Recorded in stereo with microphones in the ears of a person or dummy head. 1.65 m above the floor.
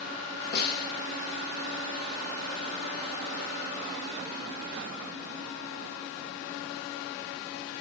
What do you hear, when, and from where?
0.5 s a snare drum: 60° left (ahead or behind), 3.5 m